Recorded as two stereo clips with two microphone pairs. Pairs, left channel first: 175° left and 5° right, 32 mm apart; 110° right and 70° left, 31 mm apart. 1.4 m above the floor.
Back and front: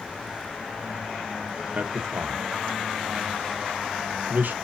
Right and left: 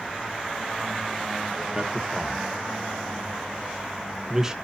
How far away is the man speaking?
About 1.5 m.